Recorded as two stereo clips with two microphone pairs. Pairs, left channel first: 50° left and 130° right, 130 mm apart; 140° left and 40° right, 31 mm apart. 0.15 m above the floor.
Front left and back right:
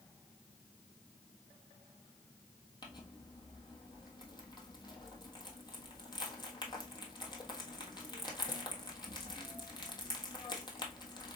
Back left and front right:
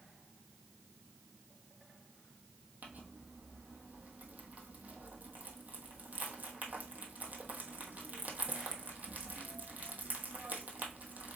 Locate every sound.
2.8 s crumpling: 5° right, 1.1 m